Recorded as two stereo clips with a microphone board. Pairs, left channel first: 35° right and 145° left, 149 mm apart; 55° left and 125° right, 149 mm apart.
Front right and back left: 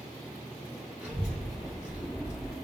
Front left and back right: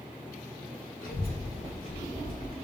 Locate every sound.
1.0 s a child speaking: 65° left, 0.6 m